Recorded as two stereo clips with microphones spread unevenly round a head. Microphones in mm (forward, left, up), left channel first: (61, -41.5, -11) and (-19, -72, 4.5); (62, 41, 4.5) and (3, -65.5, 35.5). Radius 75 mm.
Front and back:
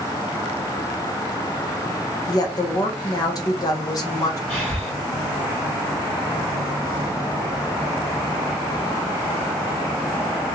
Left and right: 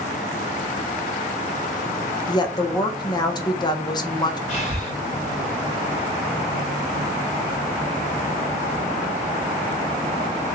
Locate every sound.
2.3 s a woman speaking: 30° left, 0.5 m
4.5 s breathing: 95° left, 1.0 m